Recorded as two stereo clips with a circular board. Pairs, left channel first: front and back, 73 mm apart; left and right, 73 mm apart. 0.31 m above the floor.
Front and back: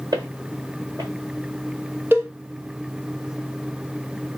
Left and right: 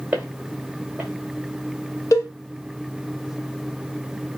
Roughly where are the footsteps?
Behind.